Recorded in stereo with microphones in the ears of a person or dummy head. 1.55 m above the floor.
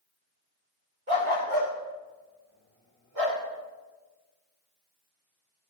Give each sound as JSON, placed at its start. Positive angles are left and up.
{"t": 1.1, "sound": "a dog barking", "side_deg": -40, "distance_m": 1.4}